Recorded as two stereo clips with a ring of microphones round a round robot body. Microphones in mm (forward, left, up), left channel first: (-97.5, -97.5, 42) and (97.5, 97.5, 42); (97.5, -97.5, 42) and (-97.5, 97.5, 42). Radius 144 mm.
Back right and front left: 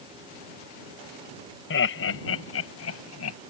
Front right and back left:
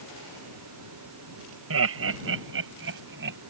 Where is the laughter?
175° left; by 3.4 s 175° right.